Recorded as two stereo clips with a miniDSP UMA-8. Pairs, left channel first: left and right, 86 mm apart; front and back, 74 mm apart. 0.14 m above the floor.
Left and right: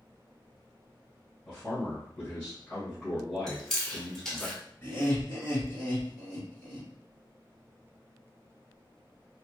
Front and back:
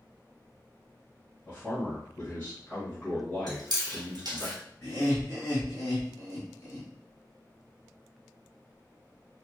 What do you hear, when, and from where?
1.4 s a man speaking: 35° left, 1.2 m
3.5 s chewing: 175° left, 0.9 m
4.8 s laughter: 55° left, 1.9 m